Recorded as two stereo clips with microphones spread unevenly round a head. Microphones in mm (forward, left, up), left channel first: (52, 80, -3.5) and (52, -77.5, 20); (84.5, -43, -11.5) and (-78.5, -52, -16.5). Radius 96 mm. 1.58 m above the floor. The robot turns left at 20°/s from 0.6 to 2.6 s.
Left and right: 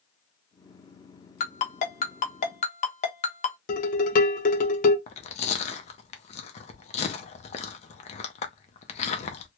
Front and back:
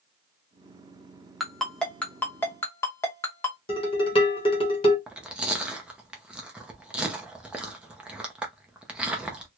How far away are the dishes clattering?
About 1.0 m.